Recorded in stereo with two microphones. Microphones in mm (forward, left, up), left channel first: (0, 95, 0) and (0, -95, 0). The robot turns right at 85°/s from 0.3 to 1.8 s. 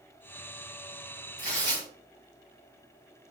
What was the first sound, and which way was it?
Tearing paper, 130° right.